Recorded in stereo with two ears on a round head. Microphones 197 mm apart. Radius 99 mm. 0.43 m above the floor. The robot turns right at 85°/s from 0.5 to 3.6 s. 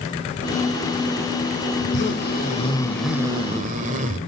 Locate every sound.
1.8 s a zipper: 75° left, 2 m; by 4.2 s 130° right, 2 m